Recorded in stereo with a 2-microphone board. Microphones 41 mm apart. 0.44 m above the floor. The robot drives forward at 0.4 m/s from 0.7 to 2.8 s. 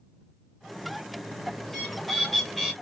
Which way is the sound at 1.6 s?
5° left (ahead or behind).